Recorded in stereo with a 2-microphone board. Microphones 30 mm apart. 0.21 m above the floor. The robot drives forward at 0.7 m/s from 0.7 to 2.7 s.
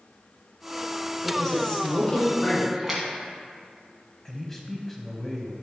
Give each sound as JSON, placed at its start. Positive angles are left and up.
{"t": 1.2, "sound": "a woman speaking", "side_deg": 20, "distance_m": 2.5}
{"t": 2.7, "sound": "a splash", "side_deg": -10, "distance_m": 1.6}
{"t": 4.2, "sound": "a man speaking", "side_deg": 10, "distance_m": 0.9}